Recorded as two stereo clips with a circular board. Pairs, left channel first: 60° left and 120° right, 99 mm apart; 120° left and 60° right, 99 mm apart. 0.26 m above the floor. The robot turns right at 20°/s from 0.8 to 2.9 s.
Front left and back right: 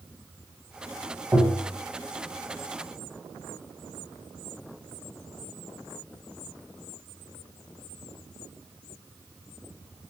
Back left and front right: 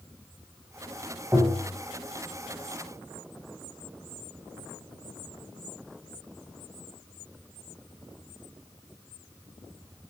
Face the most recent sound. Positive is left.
turn(degrees=-65)